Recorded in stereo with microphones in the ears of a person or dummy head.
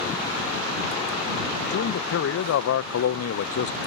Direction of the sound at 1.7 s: 60° left (ahead or behind).